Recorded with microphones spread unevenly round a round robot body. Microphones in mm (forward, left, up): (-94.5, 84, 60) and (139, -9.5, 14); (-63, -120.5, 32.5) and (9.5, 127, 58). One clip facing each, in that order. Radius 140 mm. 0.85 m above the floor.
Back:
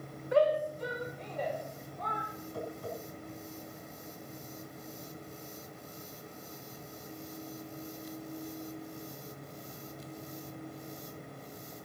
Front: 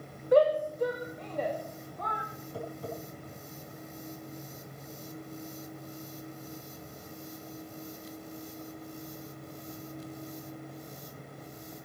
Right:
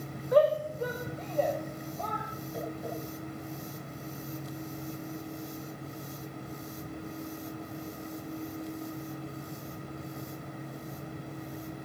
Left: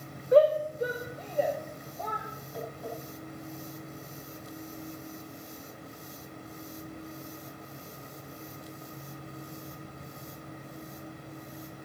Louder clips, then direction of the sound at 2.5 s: Front 1 dB, right 1 dB; 35° right.